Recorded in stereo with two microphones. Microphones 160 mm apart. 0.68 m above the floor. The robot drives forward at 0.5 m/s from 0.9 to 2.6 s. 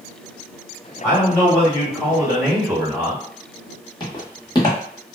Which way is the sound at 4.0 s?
30° left (ahead or behind).